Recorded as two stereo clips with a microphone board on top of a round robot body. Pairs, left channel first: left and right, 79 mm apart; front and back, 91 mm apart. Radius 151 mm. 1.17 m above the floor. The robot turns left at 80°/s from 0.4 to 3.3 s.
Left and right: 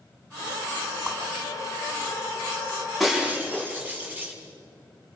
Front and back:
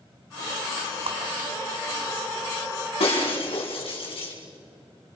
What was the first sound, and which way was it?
A whoosh, straight behind.